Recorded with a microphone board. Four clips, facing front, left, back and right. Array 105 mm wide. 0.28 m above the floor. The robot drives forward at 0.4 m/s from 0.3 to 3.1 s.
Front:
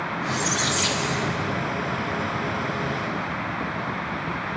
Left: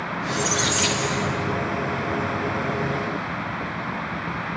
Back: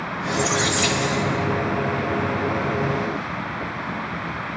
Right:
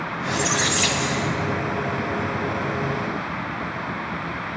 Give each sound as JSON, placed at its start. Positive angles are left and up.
{"t": 0.2, "sound": "a squeak", "azimuth_deg": -105, "distance_m": 1.2}